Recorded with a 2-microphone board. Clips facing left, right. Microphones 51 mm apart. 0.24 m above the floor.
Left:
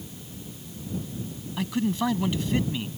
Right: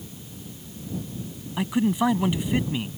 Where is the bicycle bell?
I don't hear a bicycle bell.